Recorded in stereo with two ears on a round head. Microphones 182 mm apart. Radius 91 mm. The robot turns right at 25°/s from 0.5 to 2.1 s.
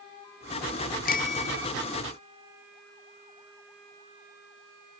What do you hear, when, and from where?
1.1 s a bicycle bell: 45° left (ahead or behind); by 1.7 s 30° left (ahead or behind)